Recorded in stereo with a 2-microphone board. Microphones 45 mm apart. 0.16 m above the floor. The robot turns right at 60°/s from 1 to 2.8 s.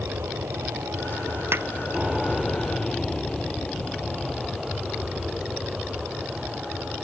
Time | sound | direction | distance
0.0 | an aircraft | 65° right (ahead or behind) | ?
1.5 | a pop | 60° right (ahead or behind) | ?